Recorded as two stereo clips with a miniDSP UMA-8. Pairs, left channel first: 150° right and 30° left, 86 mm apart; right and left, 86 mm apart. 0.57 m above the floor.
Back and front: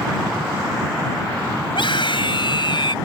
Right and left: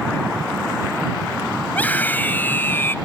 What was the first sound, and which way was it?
A scream, 160° right.